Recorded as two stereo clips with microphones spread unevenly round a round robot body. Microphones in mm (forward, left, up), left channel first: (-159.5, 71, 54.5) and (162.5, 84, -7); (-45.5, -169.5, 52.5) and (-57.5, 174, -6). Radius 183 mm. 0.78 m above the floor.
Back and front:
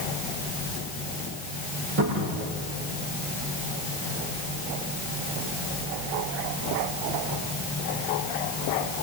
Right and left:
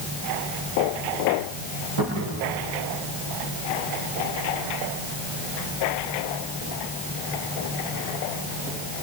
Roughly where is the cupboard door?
Ahead left.